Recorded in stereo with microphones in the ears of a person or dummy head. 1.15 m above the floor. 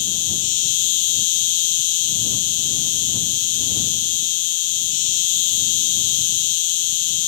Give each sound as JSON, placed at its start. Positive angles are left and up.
{"t": 0.0, "sound": "an insect", "side_deg": 45}